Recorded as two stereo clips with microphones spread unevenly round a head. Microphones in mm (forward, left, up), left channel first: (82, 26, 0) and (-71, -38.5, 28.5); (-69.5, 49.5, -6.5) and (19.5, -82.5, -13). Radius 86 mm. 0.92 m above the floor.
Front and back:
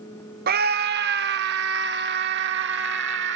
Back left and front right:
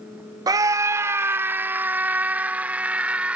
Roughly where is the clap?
I don't hear a clap.